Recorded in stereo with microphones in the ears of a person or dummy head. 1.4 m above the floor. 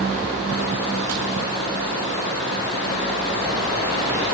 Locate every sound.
Only background noise.